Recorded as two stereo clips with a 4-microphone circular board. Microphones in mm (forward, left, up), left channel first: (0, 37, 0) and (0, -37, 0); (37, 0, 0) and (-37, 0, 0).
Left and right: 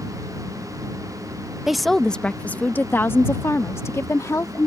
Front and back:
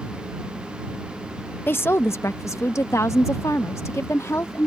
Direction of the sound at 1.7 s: 10° right.